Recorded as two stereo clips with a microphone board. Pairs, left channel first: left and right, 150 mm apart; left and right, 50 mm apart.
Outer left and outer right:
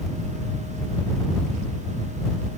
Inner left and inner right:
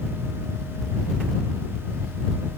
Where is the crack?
I don't hear a crack.